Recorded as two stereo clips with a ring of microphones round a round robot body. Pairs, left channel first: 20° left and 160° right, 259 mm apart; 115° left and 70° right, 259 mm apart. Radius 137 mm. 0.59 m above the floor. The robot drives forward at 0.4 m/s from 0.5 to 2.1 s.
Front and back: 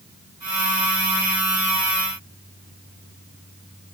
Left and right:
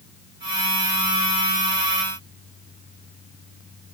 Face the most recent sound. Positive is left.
No sound to turn to.